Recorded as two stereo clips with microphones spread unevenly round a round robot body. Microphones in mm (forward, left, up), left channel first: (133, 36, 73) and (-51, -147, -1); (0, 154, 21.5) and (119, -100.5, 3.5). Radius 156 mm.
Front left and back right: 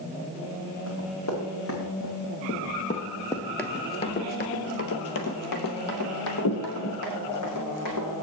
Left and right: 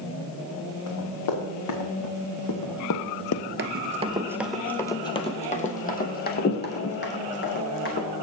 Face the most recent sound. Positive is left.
turn(degrees=70)